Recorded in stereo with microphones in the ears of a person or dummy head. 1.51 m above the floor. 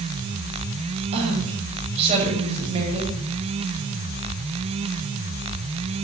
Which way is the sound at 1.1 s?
30° right (ahead or behind).